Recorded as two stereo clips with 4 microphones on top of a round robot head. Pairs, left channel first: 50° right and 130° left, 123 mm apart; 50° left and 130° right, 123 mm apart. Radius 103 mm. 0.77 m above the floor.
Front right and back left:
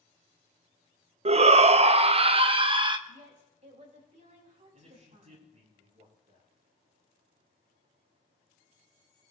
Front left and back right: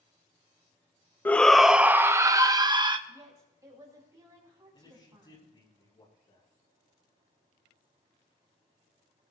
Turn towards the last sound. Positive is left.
turn(degrees=105)